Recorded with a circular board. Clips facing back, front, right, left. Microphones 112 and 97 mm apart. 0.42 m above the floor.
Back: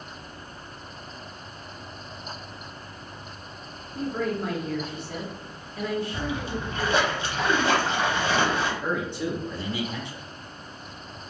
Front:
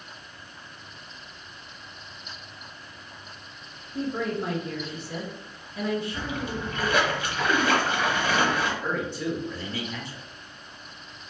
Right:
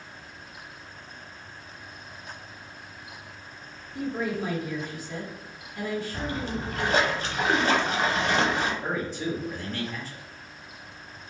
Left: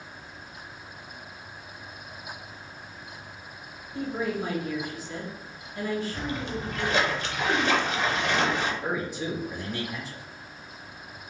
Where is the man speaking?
140° left, 0.7 m.